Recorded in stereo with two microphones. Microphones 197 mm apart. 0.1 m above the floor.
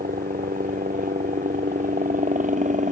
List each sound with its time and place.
0.0 s a helicopter: 45° right (ahead or behind); by 2.9 s 40° right (ahead or behind)